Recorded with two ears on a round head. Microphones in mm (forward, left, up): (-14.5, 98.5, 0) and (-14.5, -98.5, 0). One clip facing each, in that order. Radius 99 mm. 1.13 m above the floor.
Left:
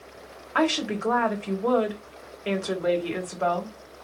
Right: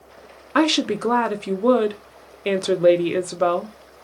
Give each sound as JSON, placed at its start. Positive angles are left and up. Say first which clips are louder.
{"t": 0.6, "sound": "a woman speaking", "louder": "right 6 dB", "side_deg": -50, "distance_m": 1.1}